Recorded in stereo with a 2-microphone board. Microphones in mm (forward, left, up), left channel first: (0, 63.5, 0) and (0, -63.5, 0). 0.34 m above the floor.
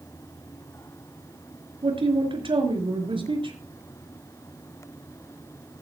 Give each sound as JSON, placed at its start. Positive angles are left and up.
{"t": 1.8, "sound": "a man speaking", "side_deg": -45, "distance_m": 5.0}